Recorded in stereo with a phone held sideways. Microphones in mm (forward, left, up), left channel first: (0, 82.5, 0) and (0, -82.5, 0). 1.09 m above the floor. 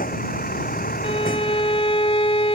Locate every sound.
0.0 s a vehicle: 60° left (ahead or behind)
1.0 s a violin: 35° left (ahead or behind)